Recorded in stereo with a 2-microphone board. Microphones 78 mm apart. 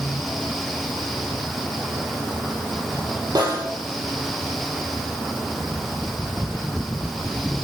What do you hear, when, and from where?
3.4 s a snare drum: 60° right (ahead or behind), 3 m